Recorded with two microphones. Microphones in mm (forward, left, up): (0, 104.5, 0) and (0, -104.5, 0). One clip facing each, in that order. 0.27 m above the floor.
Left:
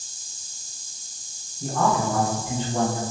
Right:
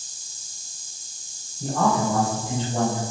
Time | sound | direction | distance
1.6 | a man speaking | 30° right (ahead or behind) | 1.2 m